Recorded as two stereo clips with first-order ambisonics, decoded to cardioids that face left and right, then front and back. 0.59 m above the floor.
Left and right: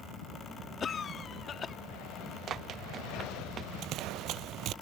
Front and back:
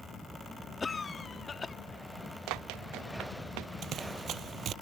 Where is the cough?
55° left.